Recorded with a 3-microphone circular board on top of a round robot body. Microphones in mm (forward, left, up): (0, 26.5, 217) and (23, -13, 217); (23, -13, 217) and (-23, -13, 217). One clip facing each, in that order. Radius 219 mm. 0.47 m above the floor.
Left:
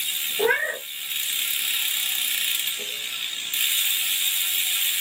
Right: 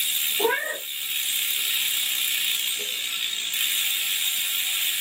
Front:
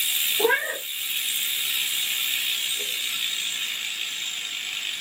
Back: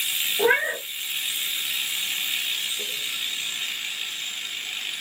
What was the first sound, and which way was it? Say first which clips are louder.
A cat meowing: left 3 dB, back 2 dB; 125° left.